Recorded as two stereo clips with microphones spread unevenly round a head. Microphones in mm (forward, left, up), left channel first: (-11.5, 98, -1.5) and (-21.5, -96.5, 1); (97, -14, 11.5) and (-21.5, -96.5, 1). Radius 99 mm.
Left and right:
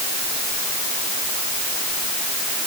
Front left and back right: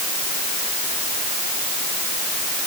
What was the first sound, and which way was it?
Only background noise.